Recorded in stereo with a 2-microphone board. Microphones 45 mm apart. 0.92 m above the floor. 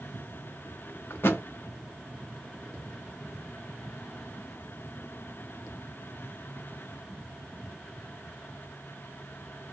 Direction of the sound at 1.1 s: 65° left (ahead or behind).